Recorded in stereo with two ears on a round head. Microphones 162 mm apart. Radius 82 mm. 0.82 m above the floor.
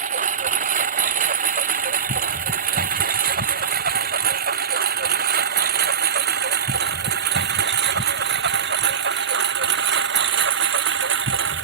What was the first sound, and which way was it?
A lawn mower, 45° right (ahead or behind).